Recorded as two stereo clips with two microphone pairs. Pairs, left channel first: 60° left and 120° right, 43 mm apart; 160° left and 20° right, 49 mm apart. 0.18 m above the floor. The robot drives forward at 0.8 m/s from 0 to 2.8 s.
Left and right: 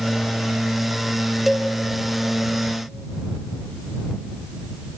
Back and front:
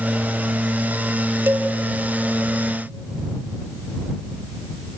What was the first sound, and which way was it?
A cowbell, 40° right.